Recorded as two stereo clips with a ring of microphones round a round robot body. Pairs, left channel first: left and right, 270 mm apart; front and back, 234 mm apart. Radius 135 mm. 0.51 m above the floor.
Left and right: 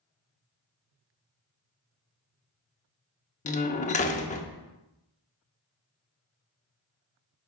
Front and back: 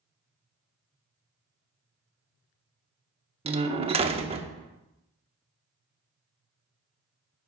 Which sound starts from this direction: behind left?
A door slam, at 3.5 s.